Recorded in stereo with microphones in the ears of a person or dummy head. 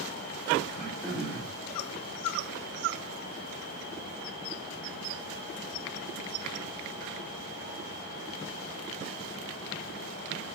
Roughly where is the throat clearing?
Centre.